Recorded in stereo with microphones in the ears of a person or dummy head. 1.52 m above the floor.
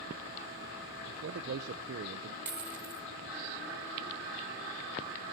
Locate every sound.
1.1 s a man speaking: 60° right (ahead or behind), 0.9 m
2.5 s a dropped coin: 15° right (ahead or behind), 1.4 m